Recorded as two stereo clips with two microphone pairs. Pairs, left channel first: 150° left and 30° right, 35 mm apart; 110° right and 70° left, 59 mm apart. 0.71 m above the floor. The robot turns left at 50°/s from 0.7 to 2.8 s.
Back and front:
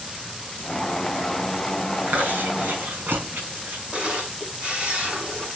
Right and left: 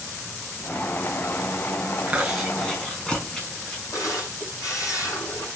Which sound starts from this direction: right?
A camera shutter, at 3.9 s.